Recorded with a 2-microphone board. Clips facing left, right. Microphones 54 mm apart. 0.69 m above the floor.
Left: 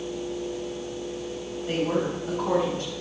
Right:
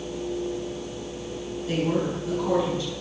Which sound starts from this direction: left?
A woman speaking, at 1.7 s.